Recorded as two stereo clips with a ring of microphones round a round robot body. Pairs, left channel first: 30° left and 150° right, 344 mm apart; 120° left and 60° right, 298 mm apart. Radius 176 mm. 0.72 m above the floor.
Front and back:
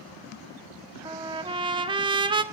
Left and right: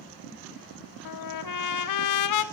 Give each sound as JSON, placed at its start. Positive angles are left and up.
{"t": 1.1, "sound": "a trumpet", "azimuth_deg": 135, "distance_m": 1.2}